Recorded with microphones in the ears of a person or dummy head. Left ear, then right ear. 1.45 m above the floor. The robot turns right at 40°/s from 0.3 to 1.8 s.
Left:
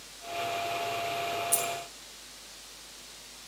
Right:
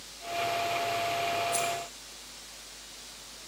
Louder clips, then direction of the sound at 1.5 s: Right 2 dB; 40° left (ahead or behind).